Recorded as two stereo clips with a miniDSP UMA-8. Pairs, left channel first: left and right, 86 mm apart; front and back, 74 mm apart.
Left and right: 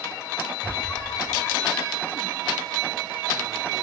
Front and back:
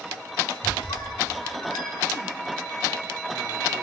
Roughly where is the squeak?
Ahead.